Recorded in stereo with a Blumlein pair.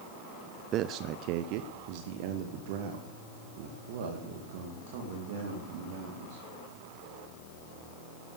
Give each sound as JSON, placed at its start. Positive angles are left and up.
{"t": 0.7, "sound": "a man speaking", "azimuth_deg": -30, "distance_m": 0.5}